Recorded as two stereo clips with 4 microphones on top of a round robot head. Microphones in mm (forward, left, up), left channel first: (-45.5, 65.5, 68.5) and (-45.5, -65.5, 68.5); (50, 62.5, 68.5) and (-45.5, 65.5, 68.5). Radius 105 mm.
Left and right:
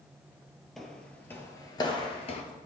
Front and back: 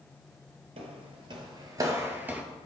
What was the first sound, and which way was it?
Footsteps, 175° left.